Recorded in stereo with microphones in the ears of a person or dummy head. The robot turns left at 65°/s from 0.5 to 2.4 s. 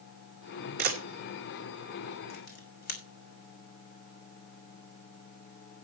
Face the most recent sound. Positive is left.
turn(degrees=50)  # may be behind; listen again after turning